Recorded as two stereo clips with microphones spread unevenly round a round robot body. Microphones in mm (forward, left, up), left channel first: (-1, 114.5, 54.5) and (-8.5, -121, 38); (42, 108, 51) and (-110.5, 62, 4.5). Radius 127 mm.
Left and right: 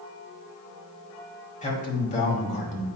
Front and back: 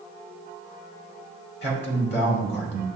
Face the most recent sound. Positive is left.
turn(degrees=30)